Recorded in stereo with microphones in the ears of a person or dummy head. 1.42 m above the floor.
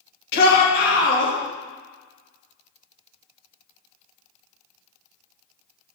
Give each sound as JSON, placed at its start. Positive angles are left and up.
{"t": 0.3, "sound": "a shout", "side_deg": 55, "distance_m": 1.4}